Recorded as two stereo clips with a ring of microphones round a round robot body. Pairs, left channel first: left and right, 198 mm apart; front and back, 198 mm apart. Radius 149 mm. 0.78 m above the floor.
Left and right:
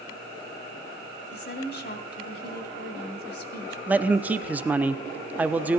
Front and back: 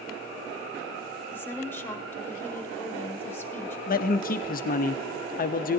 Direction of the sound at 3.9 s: 10° right.